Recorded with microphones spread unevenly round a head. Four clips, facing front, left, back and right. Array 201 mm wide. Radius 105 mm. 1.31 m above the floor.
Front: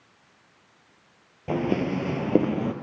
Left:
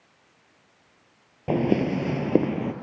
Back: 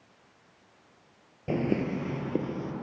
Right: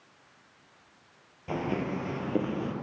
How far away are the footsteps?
About 1.5 m.